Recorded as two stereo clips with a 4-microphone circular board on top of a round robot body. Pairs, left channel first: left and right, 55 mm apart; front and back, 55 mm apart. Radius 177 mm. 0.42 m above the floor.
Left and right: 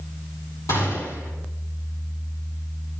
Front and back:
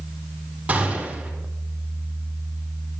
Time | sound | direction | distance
0.7 | a gunshot | 115° left | 6 m